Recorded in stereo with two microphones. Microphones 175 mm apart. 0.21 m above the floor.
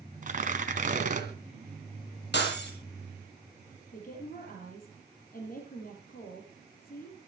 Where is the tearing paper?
45° right (ahead or behind), 2.5 m.